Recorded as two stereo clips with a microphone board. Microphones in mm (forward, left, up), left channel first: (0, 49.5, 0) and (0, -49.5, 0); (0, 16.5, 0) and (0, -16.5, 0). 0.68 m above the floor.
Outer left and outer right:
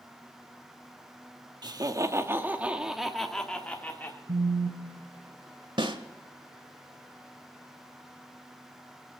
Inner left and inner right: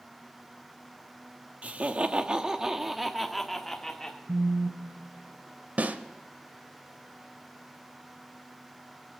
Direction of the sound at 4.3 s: 90° right.